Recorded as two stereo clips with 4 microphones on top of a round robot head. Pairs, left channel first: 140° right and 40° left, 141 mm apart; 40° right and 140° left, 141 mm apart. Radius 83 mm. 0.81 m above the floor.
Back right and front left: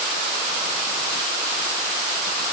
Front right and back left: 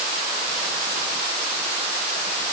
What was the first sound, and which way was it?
Only background noise.